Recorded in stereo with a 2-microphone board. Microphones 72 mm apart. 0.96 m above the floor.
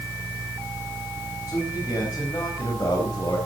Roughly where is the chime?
I don't hear a chime.